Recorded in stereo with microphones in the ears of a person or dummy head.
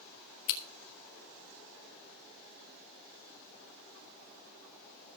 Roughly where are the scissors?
Left.